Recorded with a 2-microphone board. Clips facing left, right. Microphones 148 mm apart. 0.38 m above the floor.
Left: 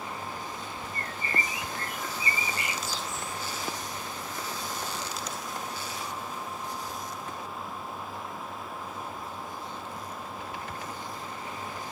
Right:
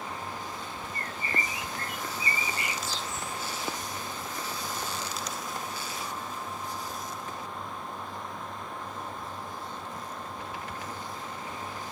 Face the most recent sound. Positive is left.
turn(degrees=-30)  # may be behind; listen again after turning